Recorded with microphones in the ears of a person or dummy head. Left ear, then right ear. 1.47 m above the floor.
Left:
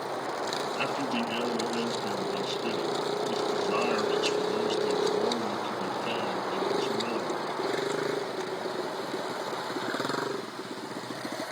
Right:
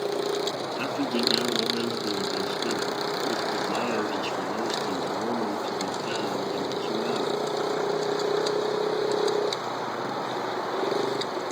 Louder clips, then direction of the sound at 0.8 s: Right 2 dB; 70° left (ahead or behind).